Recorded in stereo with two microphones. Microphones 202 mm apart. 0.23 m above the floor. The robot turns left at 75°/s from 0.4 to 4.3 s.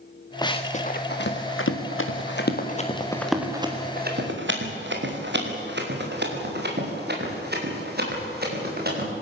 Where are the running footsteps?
20° left (ahead or behind), 2.0 m; by 9.1 s 50° right (ahead or behind), 8 m.